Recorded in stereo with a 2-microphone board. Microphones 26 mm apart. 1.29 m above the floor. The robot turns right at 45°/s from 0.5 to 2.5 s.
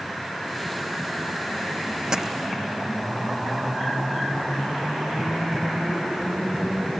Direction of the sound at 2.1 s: 25° right (ahead or behind).